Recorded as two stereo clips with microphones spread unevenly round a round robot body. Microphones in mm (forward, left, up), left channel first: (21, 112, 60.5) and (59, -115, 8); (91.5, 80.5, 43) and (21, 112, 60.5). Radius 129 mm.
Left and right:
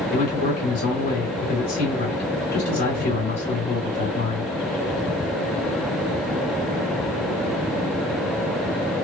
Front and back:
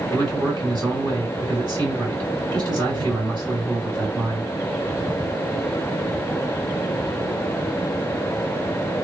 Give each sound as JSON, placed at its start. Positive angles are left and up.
{"t": 0.1, "sound": "a man speaking", "azimuth_deg": 125, "distance_m": 2.5}